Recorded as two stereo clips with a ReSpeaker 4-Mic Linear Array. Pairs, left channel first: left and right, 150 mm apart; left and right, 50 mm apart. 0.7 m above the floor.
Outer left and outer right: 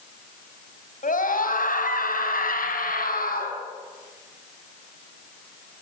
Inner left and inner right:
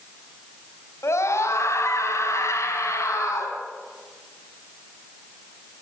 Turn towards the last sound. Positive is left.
turn(degrees=75)  # may be behind; listen again after turning